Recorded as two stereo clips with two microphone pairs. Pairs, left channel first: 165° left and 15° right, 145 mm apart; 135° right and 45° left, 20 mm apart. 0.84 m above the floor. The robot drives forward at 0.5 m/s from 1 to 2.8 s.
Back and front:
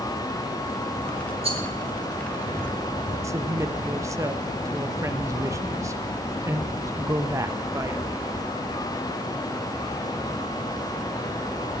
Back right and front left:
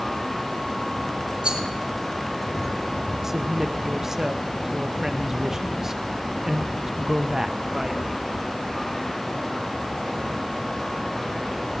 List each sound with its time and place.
1.4 s a rattle: 25° left, 2 m
3.2 s a woman speaking: 20° left, 0.7 m